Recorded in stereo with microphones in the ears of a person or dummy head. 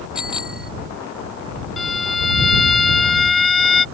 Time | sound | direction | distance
0.1 | a bicycle bell | 5° right (ahead or behind) | ?
1.8 | a violin | centre (ahead or behind) | ?